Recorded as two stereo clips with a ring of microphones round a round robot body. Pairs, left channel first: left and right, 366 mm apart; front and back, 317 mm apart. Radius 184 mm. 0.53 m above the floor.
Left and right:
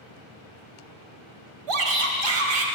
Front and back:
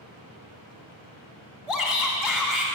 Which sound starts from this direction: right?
A shout, at 1.7 s.